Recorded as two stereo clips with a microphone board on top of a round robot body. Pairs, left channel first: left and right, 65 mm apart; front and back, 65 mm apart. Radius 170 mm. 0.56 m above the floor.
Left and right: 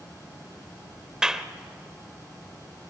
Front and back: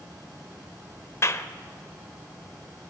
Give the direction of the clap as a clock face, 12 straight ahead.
12 o'clock.